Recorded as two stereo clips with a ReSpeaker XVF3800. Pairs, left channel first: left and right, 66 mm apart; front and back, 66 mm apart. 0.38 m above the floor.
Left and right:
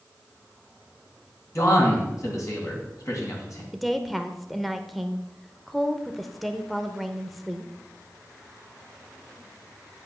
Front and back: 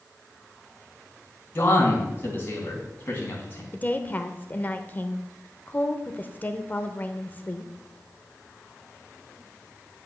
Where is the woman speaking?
Straight ahead, 0.9 m.